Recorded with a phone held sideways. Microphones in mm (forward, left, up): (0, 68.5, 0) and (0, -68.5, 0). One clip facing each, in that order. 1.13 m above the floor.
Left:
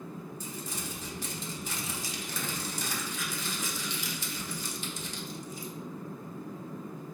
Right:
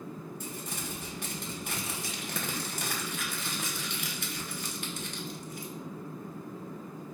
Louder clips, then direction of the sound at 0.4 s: Even; 60° right (ahead or behind).